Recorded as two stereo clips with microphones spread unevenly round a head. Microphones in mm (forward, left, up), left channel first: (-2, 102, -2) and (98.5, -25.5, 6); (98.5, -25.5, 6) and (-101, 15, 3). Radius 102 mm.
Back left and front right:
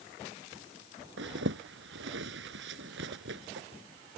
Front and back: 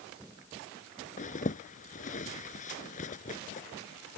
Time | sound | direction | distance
1.2 | a zipper | 65° right | ?